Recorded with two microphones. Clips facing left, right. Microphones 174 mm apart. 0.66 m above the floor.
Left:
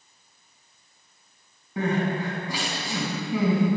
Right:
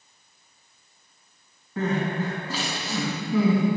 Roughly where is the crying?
Centre.